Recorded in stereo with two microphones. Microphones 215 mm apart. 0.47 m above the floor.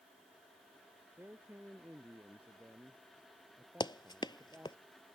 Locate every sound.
1.2 s a man speaking: 10° right (ahead or behind)
3.8 s running footsteps: 20° left (ahead or behind)